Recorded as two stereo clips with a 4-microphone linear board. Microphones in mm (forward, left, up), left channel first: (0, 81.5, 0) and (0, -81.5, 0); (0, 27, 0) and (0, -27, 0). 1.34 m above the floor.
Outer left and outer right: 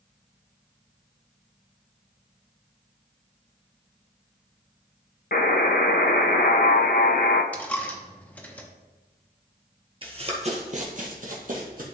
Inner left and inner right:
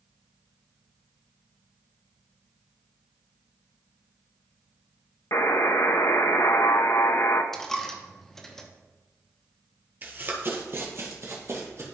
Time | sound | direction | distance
5.3 | a buzzer | 60° left (ahead or behind) | 0.6 m
7.5 | a dropped coin | 10° left (ahead or behind) | 0.9 m
10.0 | running footsteps | 30° right (ahead or behind) | 1.5 m